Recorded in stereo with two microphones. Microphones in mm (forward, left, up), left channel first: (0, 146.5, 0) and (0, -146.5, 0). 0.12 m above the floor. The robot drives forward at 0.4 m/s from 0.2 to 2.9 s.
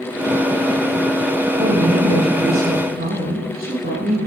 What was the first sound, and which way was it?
A woman speaking, 35° right (ahead or behind).